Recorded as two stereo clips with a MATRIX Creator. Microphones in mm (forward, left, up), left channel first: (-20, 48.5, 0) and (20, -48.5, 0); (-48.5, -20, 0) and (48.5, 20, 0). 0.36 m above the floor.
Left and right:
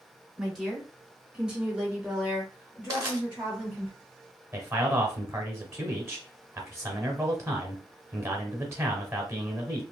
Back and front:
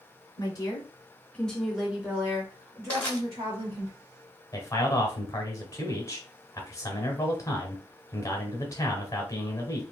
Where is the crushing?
90° right, 0.9 m.